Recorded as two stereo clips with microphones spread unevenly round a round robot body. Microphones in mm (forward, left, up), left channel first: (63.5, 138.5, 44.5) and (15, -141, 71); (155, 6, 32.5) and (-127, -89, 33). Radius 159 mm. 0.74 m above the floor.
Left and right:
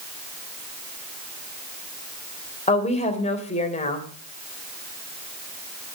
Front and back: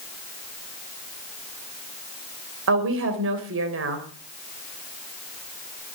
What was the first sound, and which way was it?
A woman speaking, 150° left.